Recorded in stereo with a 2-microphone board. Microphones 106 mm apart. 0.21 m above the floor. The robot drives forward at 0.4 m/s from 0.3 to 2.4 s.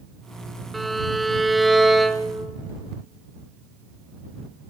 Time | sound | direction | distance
0.7 | a violin | centre (ahead or behind) | 0.6 m